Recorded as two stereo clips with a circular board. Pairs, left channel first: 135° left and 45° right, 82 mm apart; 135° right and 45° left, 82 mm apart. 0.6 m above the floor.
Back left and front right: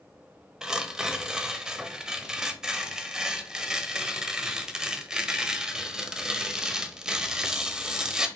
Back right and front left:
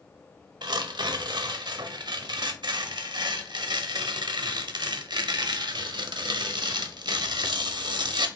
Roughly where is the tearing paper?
Ahead left.